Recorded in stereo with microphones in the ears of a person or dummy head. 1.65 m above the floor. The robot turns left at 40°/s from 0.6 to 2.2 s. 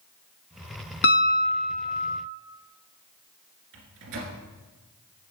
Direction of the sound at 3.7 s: 65° right (ahead or behind).